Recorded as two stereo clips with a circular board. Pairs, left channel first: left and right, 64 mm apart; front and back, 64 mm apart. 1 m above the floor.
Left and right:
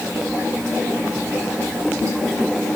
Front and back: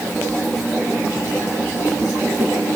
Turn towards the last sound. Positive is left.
No sound to turn to.